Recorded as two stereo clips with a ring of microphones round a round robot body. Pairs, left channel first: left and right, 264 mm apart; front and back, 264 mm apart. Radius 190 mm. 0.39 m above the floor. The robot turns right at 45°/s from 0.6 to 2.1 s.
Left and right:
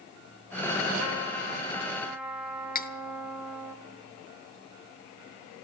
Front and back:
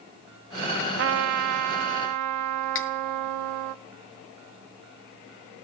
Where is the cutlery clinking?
35° left, 0.9 m.